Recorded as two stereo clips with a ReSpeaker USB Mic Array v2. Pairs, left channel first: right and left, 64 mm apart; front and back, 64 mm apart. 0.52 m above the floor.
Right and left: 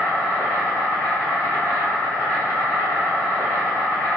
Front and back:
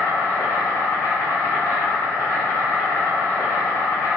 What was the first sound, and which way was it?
An insect, 30° right.